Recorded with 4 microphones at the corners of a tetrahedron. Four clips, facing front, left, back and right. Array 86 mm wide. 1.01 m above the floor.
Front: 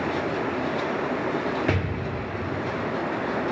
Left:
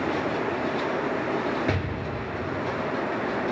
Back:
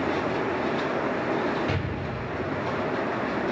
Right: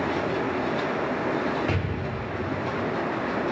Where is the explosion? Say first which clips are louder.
Even, front 3 dB; 25° left, 2.5 m.